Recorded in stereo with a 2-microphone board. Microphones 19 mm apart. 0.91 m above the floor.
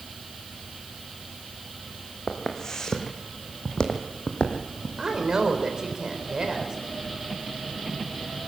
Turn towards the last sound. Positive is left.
turn(degrees=-30)  # may be behind; listen again after turning